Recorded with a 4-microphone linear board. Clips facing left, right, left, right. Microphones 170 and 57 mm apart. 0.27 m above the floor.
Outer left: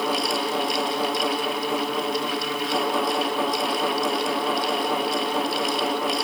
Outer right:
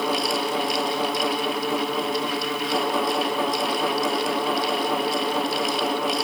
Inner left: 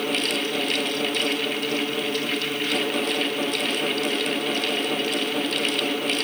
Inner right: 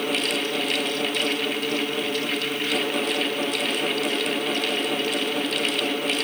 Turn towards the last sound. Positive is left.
No sound to turn to.